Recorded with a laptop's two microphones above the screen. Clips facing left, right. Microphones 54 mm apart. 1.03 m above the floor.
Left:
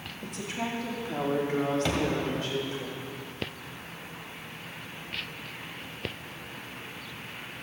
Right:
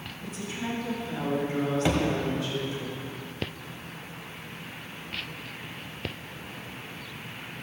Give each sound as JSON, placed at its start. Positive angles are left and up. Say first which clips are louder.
{"t": 0.2, "sound": "a woman speaking", "louder": "left 1 dB", "side_deg": 65, "distance_m": 2.0}
{"t": 1.9, "sound": "a thud", "louder": "right 3 dB", "side_deg": -15, "distance_m": 1.4}